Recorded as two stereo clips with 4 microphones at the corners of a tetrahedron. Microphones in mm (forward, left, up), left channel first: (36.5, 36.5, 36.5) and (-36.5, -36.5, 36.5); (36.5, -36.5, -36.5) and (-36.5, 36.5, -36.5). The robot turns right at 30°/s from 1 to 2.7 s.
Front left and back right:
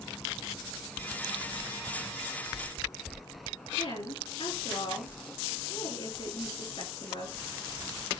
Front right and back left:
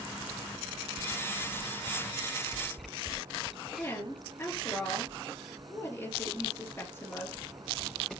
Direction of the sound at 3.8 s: 25° left.